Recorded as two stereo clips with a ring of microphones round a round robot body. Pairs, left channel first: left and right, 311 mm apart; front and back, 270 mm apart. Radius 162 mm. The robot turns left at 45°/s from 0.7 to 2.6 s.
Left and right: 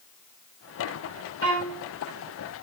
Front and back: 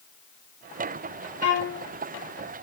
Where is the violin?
45° right, 6 m; by 1.8 s 65° right, 6 m.